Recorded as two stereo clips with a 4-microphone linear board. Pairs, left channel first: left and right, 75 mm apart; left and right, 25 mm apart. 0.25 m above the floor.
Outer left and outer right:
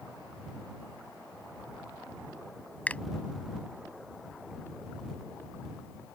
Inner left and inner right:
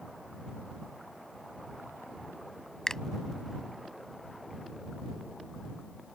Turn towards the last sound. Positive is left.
turn(degrees=20)  # may be behind; listen again after turning